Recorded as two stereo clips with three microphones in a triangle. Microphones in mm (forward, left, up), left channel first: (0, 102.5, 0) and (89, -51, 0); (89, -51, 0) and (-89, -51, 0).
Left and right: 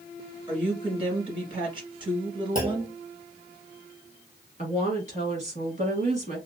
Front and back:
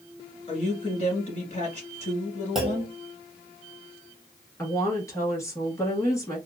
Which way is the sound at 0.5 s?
20° right.